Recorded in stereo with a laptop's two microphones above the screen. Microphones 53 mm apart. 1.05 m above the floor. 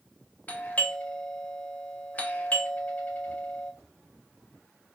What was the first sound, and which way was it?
A doorbell, 30° left (ahead or behind).